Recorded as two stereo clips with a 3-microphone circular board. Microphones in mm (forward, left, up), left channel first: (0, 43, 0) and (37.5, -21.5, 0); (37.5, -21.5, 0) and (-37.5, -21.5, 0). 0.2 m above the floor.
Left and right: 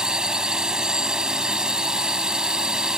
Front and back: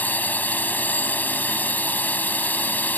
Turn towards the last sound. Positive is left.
turn(degrees=5)